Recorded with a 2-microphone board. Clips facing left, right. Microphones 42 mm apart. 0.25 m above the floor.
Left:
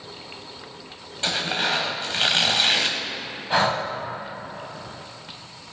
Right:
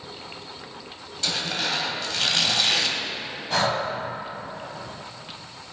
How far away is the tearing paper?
About 1.2 m.